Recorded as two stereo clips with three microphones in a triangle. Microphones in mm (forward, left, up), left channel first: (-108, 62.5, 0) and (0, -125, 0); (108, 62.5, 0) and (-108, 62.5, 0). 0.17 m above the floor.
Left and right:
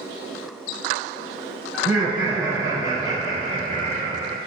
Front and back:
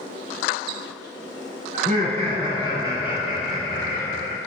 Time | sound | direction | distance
1.7 | laughter | 145° right | 1.4 m